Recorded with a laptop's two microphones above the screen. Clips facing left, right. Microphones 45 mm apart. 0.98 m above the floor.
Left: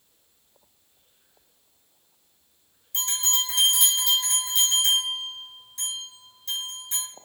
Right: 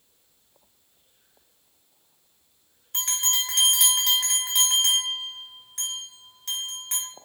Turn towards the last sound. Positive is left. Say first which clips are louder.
# even
turn(degrees=-65)  # may be behind; listen again after turning